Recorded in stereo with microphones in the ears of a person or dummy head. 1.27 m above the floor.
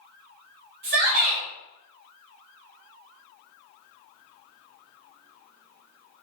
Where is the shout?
55° right (ahead or behind), 1.1 m.